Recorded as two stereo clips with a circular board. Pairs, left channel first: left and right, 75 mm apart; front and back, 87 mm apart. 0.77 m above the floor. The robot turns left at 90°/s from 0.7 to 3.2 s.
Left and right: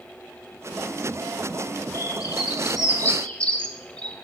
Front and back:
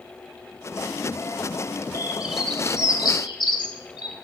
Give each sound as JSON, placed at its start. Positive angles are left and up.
{"t": 1.9, "sound": "a bird", "azimuth_deg": 130, "distance_m": 2.5}